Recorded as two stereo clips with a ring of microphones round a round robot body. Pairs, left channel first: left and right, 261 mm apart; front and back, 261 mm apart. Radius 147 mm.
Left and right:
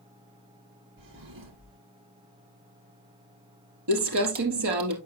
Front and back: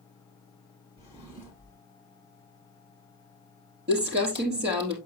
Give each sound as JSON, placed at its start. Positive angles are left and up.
{"t": 1.0, "sound": "a drawer", "azimuth_deg": -110, "distance_m": 4.0}
{"t": 3.9, "sound": "crumpling", "azimuth_deg": -120, "distance_m": 3.0}